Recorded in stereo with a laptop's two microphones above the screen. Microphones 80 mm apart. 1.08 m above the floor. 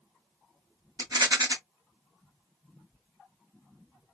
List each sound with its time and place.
1.0 s a rattle: 50° right (ahead or behind), 1.4 m